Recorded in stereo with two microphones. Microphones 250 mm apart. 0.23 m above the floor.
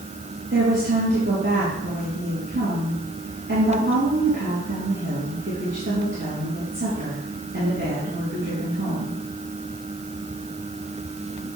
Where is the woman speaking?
45° right (ahead or behind), 4.5 m.